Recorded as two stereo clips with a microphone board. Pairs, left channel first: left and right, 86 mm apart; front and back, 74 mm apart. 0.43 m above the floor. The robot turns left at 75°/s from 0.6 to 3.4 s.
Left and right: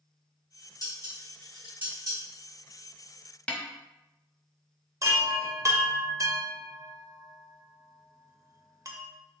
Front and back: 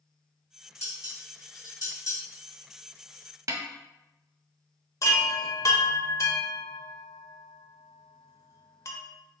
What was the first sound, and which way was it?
Dishes clattering, 50° left.